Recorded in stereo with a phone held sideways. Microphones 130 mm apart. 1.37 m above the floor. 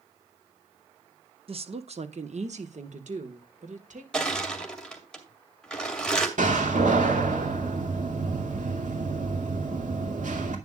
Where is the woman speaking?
50° right (ahead or behind), 0.9 m; by 4.0 s 75° right (ahead or behind), 2.5 m.